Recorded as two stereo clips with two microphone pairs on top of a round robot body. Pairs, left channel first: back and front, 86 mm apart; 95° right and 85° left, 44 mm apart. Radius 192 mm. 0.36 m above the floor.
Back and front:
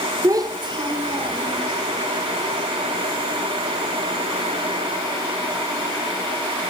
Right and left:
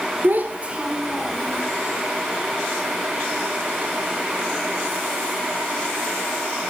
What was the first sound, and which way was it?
A child speaking, 45° left.